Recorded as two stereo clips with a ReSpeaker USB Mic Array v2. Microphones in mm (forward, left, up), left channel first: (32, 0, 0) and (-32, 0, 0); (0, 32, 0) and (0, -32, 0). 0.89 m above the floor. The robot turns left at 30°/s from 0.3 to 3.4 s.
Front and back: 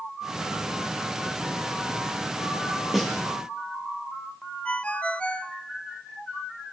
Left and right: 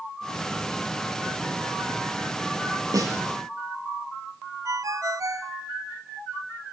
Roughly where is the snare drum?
Right.